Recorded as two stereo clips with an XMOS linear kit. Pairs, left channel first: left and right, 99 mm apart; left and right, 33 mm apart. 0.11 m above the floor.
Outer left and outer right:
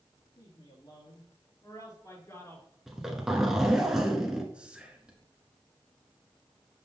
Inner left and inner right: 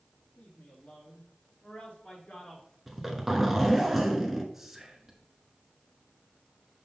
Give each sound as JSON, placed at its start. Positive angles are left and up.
{"t": 0.4, "sound": "a man speaking", "side_deg": 55, "distance_m": 3.0}
{"t": 2.9, "sound": "a zipper", "side_deg": -5, "distance_m": 1.1}
{"t": 4.5, "sound": "whispering", "side_deg": -10, "distance_m": 1.1}